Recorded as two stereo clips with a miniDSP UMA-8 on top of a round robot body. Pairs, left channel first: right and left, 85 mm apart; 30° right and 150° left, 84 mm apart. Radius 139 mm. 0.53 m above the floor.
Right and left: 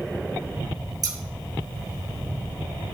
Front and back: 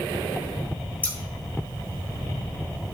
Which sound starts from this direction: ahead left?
Scissors, at 1.0 s.